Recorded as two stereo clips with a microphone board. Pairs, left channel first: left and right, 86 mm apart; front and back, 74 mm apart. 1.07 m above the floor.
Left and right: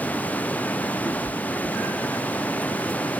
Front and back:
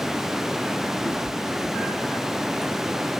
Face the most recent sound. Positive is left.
turn(degrees=20)